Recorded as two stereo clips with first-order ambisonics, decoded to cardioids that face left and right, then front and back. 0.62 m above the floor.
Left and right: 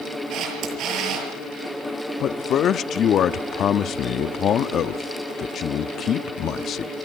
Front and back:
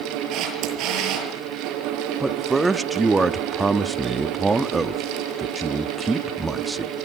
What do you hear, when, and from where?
0.3 s a camera shutter: 140° right, 7 m
2.2 s a man speaking: 105° left, 0.7 m